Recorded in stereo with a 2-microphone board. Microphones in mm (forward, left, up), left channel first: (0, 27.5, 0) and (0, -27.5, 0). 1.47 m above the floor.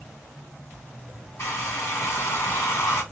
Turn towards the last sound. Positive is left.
turn(degrees=55)  # may be behind; listen again after turning